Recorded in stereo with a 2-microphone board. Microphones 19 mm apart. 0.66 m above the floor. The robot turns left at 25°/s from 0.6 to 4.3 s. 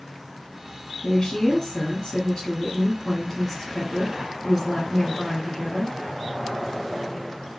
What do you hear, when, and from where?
1.0 s a woman speaking: 75° left, 1.4 m; by 6.0 s 5° right, 1.4 m